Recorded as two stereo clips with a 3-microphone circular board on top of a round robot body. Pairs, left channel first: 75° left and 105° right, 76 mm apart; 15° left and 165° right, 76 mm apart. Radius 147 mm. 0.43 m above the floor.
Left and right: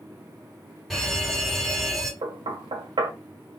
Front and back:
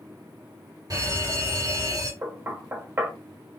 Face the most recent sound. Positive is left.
turn(degrees=-105)